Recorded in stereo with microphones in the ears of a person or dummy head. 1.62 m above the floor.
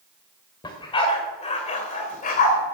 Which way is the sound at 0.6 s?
20° left (ahead or behind).